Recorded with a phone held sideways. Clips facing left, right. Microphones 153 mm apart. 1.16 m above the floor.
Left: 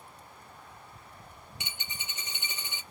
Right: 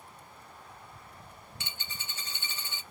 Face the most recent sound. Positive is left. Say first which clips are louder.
# left 1 dB
turn(degrees=20)  # may be behind; listen again after turning